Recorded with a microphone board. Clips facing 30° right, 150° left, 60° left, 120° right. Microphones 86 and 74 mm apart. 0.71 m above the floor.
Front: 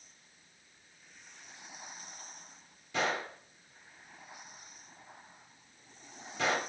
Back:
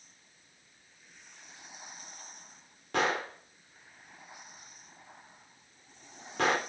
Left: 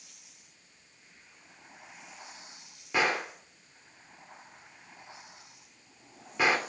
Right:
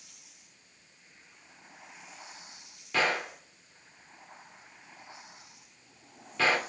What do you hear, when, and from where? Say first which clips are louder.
2.9 s a gunshot: back 3 dB, even; 130° left, 2.5 m